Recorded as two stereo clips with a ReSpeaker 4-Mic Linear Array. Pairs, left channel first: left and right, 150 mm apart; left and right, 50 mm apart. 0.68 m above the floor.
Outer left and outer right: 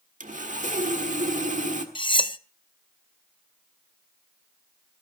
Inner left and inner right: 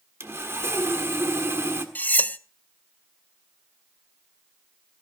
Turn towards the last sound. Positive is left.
turn(degrees=35)  # may be behind; listen again after turning